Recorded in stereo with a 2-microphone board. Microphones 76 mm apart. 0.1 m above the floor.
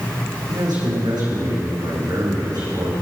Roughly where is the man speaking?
Right.